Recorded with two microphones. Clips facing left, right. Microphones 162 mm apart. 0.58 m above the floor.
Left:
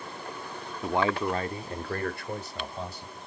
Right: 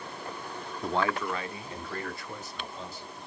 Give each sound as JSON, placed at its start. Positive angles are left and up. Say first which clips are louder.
{"t": 0.8, "sound": "a man speaking", "louder": "left 3 dB", "side_deg": 0, "distance_m": 0.7}